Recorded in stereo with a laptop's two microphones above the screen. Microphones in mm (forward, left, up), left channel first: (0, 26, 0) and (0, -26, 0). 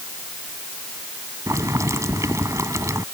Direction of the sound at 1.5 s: 80° right.